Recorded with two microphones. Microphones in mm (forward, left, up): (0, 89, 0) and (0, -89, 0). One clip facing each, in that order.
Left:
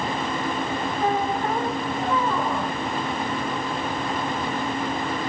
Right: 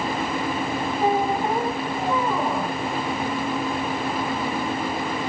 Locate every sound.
1.0 s a squeak: 15° right (ahead or behind), 1.1 m